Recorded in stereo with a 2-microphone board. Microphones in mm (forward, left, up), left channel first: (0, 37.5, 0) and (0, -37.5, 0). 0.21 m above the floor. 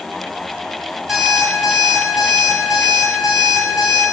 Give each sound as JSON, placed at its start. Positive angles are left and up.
{"t": 1.1, "sound": "an alarm clock", "side_deg": -5, "distance_m": 0.6}